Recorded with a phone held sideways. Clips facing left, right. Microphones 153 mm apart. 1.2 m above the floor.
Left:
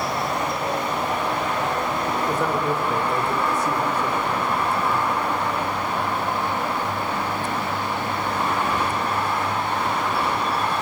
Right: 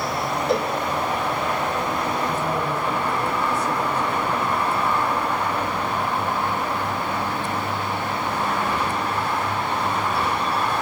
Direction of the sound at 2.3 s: 80° left.